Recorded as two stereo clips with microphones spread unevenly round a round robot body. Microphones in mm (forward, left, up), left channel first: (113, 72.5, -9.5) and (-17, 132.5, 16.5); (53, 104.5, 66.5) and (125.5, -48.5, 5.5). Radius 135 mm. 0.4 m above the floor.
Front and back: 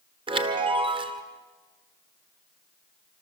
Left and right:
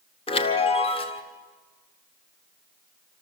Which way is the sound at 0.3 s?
Straight behind.